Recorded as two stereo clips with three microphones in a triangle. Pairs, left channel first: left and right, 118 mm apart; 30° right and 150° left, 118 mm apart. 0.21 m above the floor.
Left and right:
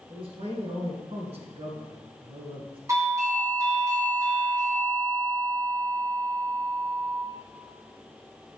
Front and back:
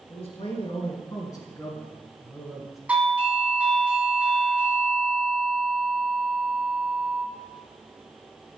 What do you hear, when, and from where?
0.1 s a man speaking: 55° right, 2.5 m; by 2.8 s 120° right, 2 m
2.9 s a doorbell: 135° right, 2.0 m